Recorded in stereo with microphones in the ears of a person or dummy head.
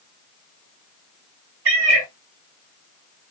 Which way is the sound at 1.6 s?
70° right (ahead or behind).